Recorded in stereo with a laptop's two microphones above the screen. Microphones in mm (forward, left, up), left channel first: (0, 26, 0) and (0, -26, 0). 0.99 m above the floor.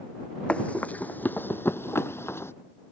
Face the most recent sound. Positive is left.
turn(degrees=50)  # may be behind; listen again after turning